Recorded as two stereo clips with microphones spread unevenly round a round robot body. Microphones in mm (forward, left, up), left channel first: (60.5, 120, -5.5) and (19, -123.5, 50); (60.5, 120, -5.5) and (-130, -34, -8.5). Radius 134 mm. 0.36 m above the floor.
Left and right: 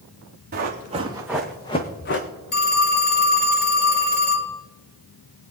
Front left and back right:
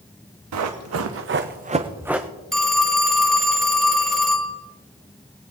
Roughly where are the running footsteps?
Behind right.